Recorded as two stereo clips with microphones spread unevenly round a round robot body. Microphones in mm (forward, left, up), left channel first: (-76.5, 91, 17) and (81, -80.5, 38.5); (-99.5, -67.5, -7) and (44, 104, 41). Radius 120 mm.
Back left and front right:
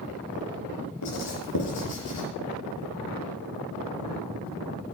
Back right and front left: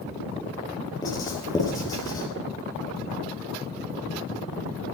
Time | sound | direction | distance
1.0 | writing | 155° left | 4.5 m